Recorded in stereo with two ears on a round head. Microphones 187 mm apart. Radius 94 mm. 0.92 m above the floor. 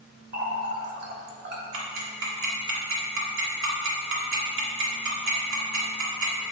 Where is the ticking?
70° right (ahead or behind), 1.6 m.